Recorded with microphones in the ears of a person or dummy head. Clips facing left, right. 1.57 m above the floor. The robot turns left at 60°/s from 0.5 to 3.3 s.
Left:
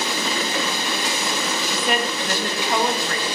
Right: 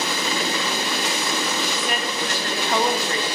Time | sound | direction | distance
1.7 | a woman speaking | 70° left | 3 m